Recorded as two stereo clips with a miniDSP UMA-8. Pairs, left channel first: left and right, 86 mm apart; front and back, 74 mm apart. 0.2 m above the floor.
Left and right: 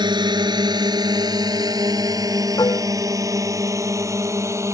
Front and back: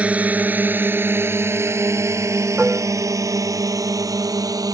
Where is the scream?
No scream in this recording.